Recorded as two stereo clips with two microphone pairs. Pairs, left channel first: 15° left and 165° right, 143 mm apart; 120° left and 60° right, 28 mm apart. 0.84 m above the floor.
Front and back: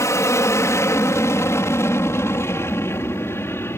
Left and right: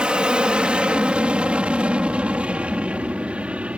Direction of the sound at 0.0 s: 40° right.